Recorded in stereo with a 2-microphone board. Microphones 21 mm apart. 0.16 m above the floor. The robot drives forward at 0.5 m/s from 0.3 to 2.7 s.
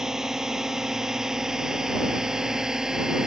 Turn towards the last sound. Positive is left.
turn(degrees=-30)  # may be behind; listen again after turning